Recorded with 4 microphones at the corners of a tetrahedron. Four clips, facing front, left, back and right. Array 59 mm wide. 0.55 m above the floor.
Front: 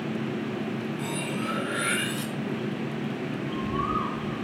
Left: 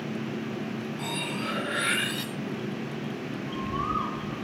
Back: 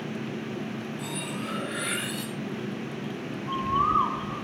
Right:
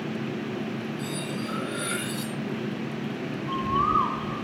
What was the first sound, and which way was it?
Cutlery clinking, 60° left.